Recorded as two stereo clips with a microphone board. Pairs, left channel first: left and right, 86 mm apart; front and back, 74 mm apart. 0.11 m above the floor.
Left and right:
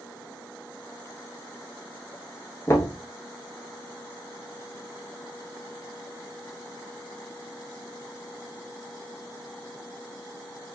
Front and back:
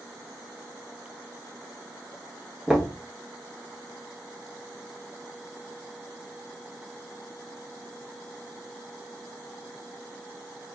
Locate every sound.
2.7 s knocking: 100° left, 1.2 m